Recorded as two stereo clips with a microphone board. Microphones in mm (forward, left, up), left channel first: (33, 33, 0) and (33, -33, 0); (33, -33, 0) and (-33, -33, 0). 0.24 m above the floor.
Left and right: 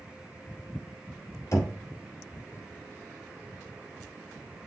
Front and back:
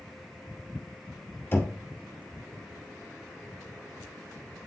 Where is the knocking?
55° left, 2 m.